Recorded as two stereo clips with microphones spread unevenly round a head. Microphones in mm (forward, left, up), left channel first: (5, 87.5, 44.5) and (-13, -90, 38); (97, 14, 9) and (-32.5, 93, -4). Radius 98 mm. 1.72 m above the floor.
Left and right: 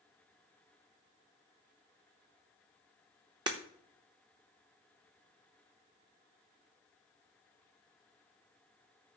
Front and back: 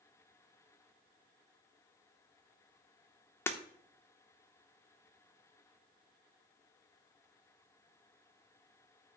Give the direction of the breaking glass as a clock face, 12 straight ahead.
2 o'clock.